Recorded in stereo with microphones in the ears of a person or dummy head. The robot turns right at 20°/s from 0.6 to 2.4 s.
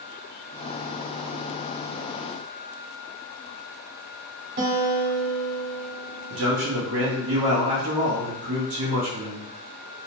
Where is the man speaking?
70° right (ahead or behind), 0.7 m.